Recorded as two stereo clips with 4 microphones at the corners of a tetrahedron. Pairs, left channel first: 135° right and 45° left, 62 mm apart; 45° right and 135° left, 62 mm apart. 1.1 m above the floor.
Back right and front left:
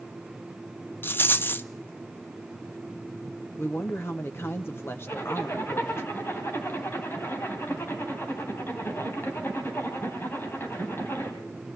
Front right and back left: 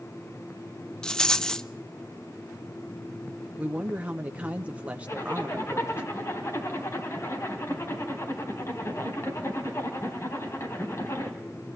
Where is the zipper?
85° right, 3 m.